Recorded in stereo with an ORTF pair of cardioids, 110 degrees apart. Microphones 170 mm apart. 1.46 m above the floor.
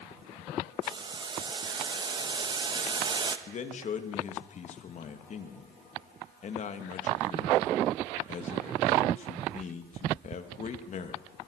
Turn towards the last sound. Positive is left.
turn(degrees=45)